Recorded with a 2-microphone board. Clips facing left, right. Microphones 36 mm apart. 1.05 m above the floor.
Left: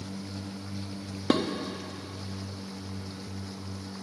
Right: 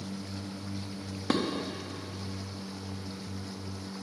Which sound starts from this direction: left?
Dishes clattering, at 1.3 s.